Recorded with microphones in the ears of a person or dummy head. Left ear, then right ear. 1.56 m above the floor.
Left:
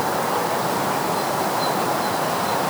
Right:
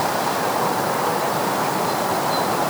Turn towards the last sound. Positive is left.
No sound to turn to.